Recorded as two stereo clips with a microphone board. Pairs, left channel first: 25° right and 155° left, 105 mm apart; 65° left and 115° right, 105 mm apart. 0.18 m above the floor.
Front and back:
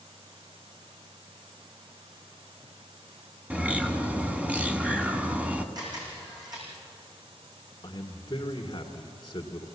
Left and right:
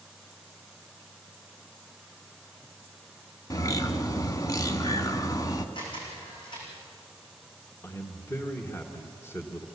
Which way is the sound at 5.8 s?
110° left.